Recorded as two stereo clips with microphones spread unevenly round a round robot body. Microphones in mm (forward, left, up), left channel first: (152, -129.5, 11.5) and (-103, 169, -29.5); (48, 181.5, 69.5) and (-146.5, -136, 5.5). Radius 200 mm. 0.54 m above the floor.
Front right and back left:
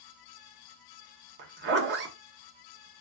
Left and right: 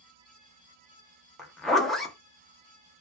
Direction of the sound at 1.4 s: 160° left.